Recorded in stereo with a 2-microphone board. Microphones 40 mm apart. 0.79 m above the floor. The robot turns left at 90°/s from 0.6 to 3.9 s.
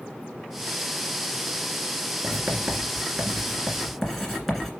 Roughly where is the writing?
Right.